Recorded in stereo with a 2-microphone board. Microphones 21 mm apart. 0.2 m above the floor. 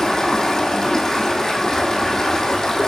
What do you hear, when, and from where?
0.0 s running water: 30° left (ahead or behind), 1.6 m